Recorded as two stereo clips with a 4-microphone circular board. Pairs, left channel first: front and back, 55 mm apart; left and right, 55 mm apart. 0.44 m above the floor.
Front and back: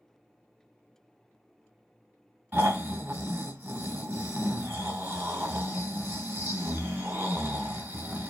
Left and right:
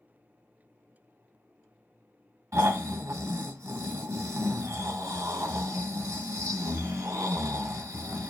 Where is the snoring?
120° right, 0.8 m.